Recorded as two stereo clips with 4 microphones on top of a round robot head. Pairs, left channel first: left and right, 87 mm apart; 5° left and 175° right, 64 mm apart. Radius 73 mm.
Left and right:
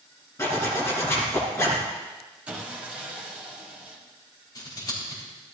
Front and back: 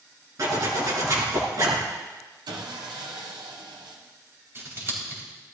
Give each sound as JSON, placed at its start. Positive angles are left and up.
{"t": 0.4, "sound": "a zipper", "azimuth_deg": 155, "distance_m": 3.5}
{"t": 2.5, "sound": "sawing", "azimuth_deg": -165, "distance_m": 1.6}
{"t": 4.5, "sound": "scissors", "azimuth_deg": 140, "distance_m": 4.0}